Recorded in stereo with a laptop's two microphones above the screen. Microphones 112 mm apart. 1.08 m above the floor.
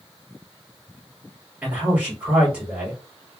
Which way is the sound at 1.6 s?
15° right (ahead or behind).